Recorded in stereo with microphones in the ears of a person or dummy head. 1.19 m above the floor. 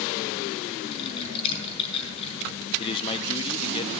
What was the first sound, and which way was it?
Typing on a keyboard, 35° left (ahead or behind).